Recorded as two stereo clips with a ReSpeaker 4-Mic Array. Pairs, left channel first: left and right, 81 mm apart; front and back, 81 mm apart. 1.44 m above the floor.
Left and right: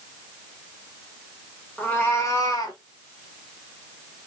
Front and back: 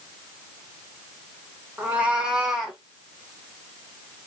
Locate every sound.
1.8 s a cat meowing: 140° left, 1.3 m; by 2.8 s 95° left, 1.8 m